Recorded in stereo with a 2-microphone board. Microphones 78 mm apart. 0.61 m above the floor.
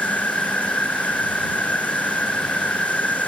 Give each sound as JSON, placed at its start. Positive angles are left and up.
{"t": 0.0, "sound": "an insect", "side_deg": 20}